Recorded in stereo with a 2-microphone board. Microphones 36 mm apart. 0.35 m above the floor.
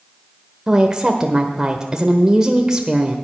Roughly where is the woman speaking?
Centre.